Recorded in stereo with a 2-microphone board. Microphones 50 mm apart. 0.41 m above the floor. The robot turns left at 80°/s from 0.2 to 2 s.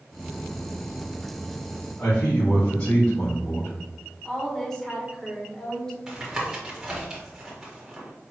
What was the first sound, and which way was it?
A man speaking, 45° left (ahead or behind).